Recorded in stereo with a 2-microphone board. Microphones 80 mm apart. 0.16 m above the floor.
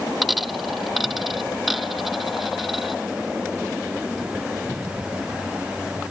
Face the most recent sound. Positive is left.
turn(degrees=0)  # may be behind; listen again after turning